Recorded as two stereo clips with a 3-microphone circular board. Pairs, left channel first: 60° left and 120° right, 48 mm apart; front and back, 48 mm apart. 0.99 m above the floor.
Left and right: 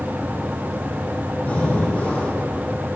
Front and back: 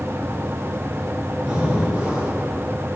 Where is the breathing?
115° left, 5 m.